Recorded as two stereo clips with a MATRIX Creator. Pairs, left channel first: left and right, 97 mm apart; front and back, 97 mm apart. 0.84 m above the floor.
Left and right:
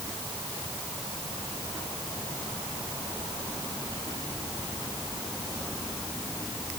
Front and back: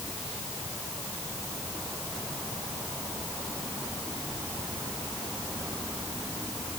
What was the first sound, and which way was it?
Only background noise.